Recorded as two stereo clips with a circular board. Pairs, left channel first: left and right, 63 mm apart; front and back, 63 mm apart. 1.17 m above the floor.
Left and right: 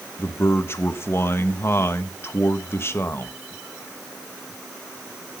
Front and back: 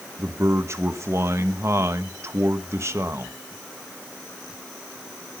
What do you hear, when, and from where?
0.2 s a man speaking: 140° left, 1.2 m